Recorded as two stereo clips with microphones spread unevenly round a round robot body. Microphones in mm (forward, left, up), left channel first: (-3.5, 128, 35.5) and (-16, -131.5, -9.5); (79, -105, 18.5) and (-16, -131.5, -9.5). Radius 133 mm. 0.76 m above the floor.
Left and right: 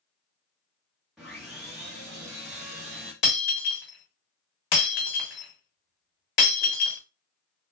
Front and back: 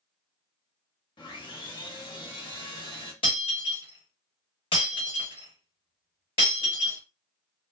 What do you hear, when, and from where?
1.2 s sawing: straight ahead, 0.9 m
3.2 s breaking glass: 45° left, 1.0 m